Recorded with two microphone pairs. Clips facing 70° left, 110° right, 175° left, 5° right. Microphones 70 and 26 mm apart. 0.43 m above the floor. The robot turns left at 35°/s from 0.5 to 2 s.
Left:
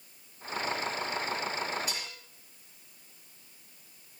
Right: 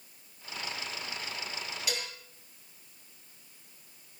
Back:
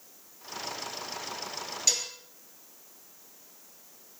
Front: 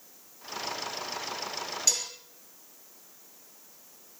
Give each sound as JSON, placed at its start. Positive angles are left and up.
{"t": 1.9, "sound": "dishes clattering", "azimuth_deg": -100, "distance_m": 6.0}